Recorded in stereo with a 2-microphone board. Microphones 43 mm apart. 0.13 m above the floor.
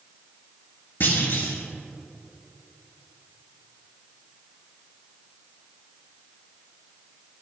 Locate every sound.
1.0 s a clunk: 45° left (ahead or behind), 2 m